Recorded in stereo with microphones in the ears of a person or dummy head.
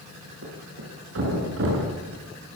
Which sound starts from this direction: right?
A thud, at 0.4 s.